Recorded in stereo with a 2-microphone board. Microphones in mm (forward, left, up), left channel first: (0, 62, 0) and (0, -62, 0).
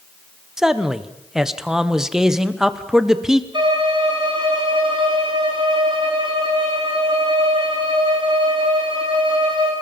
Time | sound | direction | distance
0.6 | a man speaking | 5° right (ahead or behind) | 1.4 m
3.5 | a violin | 40° right (ahead or behind) | 7 m